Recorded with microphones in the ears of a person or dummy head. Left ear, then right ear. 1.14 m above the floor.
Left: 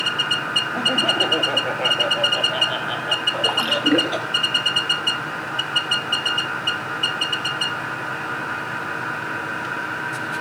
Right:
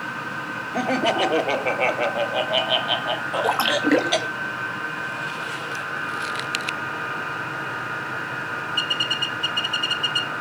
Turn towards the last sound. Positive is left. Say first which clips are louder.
# even
turn(degrees=-35)  # may be behind; listen again after turning